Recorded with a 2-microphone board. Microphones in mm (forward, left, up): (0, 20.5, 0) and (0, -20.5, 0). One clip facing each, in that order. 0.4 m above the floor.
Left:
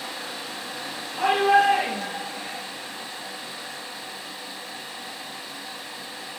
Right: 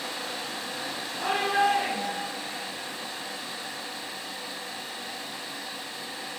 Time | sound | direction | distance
1.2 | a shout | 60° left (ahead or behind) | 9 m